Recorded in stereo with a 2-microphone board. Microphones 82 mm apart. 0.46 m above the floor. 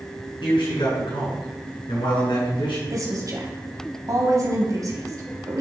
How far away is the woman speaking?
About 3 m.